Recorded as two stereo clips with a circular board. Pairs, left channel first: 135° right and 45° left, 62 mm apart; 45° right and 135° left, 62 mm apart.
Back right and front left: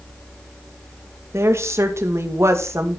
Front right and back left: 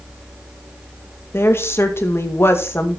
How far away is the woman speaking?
About 2 m.